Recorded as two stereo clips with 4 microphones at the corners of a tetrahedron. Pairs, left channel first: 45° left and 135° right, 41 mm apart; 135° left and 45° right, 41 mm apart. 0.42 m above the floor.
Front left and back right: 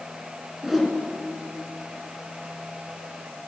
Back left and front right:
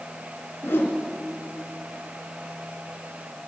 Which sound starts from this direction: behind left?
A whoosh, at 0.6 s.